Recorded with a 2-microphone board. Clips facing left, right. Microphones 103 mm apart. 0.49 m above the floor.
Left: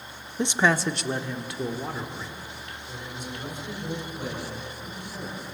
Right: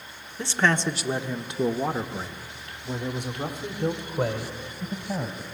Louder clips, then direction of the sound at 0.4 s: Left 1 dB; 20° left (ahead or behind).